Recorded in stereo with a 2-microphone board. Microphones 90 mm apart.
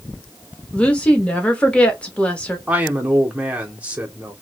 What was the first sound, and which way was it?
A woman speaking, 15° left (ahead or behind).